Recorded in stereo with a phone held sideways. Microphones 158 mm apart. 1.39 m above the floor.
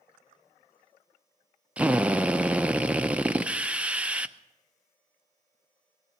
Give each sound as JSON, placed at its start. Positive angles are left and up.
{"t": 1.8, "sound": "a drill", "side_deg": -10, "distance_m": 0.5}